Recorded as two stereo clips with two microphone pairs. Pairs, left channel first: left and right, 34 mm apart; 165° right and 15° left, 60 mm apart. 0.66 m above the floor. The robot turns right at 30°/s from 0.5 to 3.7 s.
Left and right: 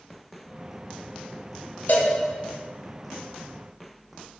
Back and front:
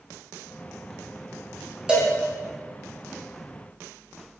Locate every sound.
1.9 s a cowbell: 85° left, 0.6 m; by 2.1 s 95° left, 0.6 m